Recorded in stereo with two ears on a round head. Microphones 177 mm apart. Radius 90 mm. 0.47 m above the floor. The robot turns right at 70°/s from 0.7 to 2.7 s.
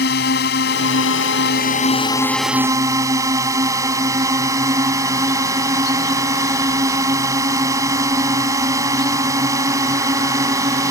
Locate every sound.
0.0 s a drone: 60° left; by 10.9 s 160° right